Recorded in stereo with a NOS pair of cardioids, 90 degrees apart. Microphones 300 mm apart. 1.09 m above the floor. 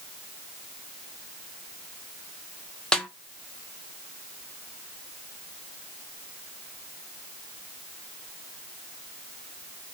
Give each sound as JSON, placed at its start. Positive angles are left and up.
{"t": 2.9, "sound": "a snare drum", "azimuth_deg": 0, "distance_m": 0.6}